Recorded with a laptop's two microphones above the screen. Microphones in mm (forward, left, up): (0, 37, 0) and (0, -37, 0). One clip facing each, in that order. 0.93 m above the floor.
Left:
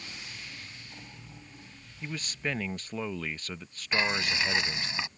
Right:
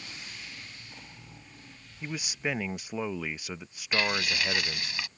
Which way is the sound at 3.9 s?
25° left (ahead or behind).